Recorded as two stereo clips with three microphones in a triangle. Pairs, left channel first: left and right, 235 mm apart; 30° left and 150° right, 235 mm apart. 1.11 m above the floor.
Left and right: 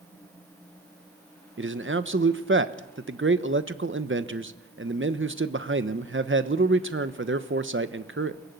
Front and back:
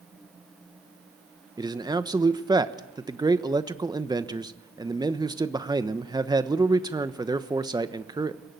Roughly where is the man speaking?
Right.